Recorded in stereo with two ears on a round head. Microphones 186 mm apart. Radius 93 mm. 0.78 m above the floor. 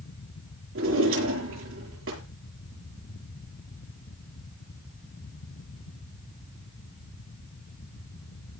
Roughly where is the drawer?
Right.